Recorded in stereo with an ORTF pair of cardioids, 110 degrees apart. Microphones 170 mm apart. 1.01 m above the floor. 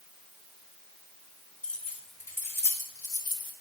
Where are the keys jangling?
5° left, 3 m; by 3.5 s 30° left, 2.5 m.